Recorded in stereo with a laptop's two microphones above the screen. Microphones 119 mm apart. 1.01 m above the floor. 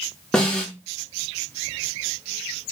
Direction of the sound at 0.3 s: 5° left (ahead or behind).